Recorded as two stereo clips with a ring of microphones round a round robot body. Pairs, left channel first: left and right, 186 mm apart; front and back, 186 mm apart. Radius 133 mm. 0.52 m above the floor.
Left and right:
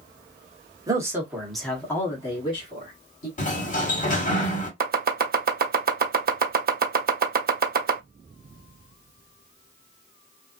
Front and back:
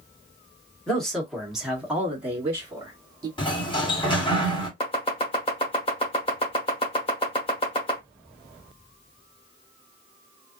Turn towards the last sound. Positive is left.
turn(degrees=-65)